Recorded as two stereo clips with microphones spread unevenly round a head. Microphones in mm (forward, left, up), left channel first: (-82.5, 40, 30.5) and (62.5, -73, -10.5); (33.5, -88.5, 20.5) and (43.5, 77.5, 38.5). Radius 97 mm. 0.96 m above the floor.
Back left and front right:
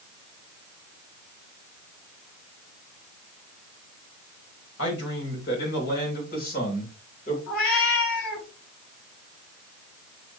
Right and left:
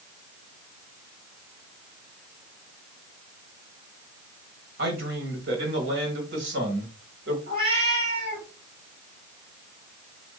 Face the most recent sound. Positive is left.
turn(degrees=150)